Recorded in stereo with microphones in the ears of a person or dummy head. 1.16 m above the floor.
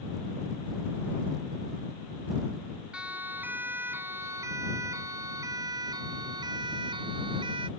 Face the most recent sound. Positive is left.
turn(degrees=-30)  # may be behind; listen again after turning